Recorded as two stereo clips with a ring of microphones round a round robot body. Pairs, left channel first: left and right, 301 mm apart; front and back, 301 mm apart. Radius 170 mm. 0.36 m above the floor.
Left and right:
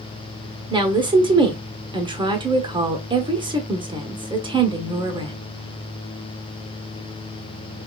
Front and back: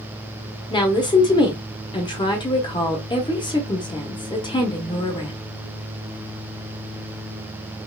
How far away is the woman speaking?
About 1.1 m.